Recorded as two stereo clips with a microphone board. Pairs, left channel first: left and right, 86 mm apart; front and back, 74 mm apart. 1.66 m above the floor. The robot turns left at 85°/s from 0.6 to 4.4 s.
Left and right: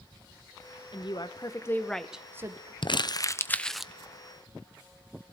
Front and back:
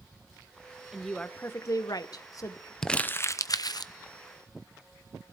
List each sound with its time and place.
0.9 s a woman speaking: 95° left, 0.9 m; by 2.7 s 55° right, 0.9 m
2.8 s crumpling: 80° left, 0.6 m; by 3.9 s 10° right, 0.6 m